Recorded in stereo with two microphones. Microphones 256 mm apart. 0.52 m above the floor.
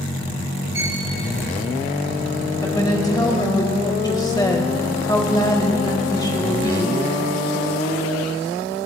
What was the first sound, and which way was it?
A violin, 10° right (ahead or behind).